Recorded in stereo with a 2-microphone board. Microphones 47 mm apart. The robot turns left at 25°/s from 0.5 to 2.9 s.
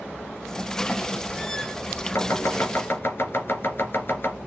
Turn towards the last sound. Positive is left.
turn(degrees=45)  # may be behind; listen again after turning